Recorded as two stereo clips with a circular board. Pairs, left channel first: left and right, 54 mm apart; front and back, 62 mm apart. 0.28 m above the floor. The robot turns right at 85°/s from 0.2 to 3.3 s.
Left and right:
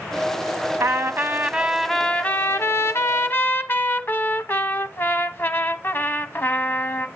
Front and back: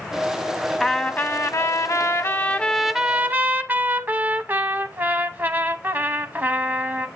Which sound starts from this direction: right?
A trumpet, at 0.8 s.